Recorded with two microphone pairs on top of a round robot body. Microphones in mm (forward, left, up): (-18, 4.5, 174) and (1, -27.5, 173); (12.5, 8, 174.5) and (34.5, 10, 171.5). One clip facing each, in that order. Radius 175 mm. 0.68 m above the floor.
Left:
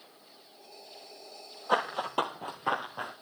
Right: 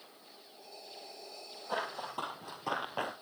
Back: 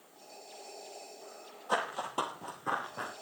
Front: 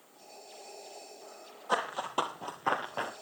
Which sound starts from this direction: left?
Running footsteps, at 1.7 s.